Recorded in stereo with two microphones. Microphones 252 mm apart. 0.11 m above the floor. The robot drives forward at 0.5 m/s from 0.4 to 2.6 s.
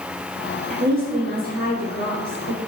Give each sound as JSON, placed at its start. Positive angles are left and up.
{"t": 0.7, "sound": "a woman speaking", "side_deg": -35, "distance_m": 2.0}